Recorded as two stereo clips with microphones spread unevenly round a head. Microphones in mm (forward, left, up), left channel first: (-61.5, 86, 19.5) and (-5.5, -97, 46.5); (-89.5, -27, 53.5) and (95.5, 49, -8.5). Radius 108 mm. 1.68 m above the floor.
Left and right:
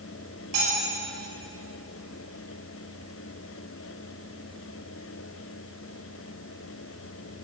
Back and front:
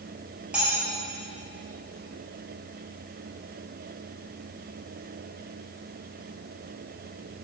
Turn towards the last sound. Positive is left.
turn(degrees=-65)